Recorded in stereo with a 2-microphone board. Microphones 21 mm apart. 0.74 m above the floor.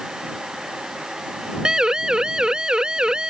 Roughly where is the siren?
Right.